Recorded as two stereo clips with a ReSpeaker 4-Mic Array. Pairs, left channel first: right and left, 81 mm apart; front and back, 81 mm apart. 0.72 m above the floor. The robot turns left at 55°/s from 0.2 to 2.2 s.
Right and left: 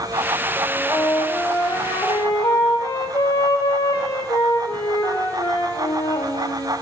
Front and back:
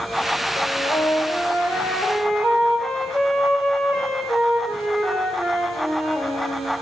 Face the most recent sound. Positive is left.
turn(degrees=-80)